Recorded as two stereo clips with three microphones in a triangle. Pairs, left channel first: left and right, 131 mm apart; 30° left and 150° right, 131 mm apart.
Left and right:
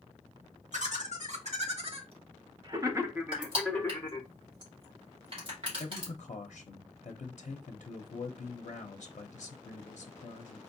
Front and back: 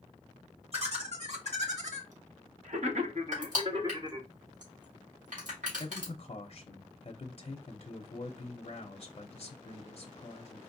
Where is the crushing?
135° right, 2.5 m.